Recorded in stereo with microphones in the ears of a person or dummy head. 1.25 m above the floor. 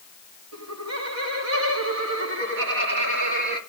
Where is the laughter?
85° right, 2.5 m; by 3.6 s 60° right (ahead or behind), 3 m.